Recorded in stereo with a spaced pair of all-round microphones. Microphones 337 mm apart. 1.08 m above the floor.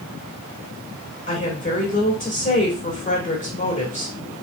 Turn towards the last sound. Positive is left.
turn(degrees=25)  # may be behind; listen again after turning